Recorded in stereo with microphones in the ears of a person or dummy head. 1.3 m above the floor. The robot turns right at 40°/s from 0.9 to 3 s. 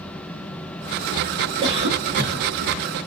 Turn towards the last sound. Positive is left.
turn(degrees=-95)